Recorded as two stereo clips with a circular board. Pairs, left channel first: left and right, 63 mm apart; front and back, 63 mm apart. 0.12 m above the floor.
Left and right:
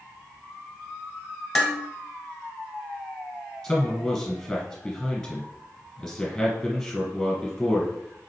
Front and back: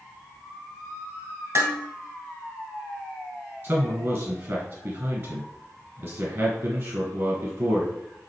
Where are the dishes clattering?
165° left, 1.2 m.